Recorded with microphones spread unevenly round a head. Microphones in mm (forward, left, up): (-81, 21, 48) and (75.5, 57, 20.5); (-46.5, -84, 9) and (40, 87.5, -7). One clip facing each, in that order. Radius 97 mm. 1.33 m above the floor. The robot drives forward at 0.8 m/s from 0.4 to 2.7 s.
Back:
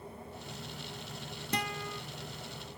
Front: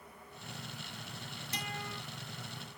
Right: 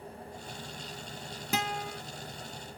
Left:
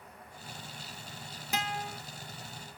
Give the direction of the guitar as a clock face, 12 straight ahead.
4 o'clock.